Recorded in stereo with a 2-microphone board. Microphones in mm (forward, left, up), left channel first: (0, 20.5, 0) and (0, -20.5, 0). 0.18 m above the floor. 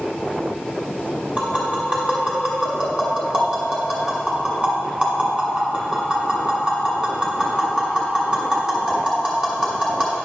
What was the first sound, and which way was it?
Tapping, 20° right (ahead or behind).